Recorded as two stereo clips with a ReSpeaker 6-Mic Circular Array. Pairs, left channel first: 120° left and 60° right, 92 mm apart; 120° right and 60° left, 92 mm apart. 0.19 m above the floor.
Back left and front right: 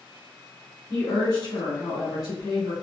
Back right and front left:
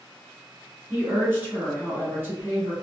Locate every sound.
0.9 s a woman speaking: 115° left, 1.5 m